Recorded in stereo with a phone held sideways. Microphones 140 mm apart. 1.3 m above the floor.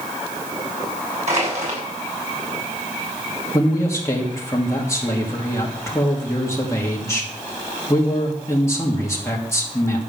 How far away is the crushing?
About 6.5 m.